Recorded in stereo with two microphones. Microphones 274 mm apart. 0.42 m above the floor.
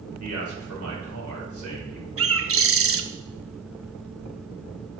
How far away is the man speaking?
About 2 m.